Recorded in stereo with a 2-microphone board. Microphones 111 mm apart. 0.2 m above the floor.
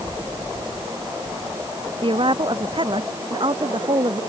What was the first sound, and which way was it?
A woman speaking, 50° right (ahead or behind).